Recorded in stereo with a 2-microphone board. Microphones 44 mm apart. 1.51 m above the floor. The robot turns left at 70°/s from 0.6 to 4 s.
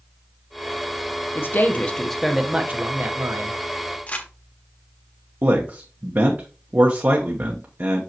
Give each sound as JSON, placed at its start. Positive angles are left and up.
{"t": 1.4, "sound": "a man speaking", "azimuth_deg": 60, "distance_m": 1.1}
{"t": 4.1, "sound": "crumpling", "side_deg": 35, "distance_m": 1.4}
{"t": 5.4, "sound": "a man speaking", "side_deg": -55, "distance_m": 1.0}